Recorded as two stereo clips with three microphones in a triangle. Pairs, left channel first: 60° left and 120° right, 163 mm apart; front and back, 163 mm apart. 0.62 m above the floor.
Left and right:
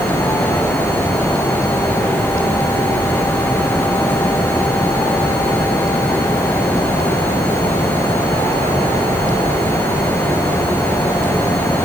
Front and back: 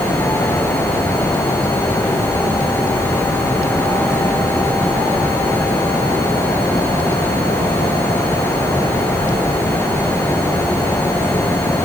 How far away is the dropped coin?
No dropped coin in this recording.